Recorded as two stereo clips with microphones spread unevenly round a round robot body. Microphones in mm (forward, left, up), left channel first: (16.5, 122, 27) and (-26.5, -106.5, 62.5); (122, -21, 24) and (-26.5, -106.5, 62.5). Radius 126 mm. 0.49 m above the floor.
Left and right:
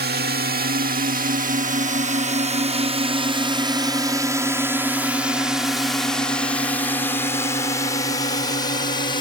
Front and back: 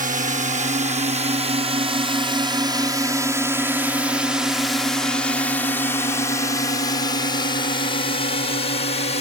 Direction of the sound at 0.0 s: 125° right.